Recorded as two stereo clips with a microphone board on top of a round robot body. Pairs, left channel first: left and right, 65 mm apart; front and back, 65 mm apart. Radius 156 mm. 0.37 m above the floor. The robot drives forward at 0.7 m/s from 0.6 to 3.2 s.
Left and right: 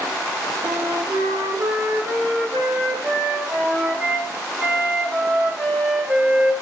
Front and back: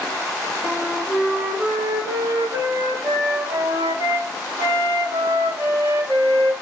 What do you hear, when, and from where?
0.6 s a flute: 80° right, 1.1 m; by 6.6 s 145° right, 1.9 m